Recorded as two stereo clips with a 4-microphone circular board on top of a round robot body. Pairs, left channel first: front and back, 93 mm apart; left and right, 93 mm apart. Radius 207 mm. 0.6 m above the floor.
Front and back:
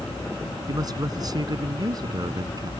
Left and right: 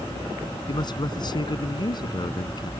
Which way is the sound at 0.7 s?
130° left.